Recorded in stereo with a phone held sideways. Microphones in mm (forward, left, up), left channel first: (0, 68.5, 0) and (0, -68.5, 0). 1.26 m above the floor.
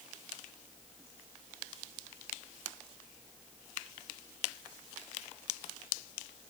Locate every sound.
Only background noise.